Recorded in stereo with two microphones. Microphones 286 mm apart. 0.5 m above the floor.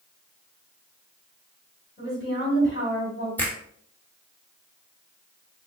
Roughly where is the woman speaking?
Left.